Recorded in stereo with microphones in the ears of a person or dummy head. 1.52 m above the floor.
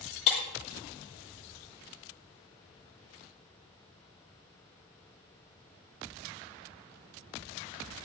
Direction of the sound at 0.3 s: 35° left (ahead or behind).